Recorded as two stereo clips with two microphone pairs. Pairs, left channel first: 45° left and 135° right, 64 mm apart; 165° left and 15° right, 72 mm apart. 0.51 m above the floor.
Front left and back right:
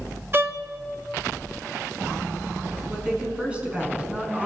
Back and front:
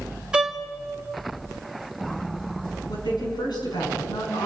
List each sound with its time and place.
0.3 s a violin: 90° right, 1.3 m
2.9 s a woman speaking: 150° left, 6 m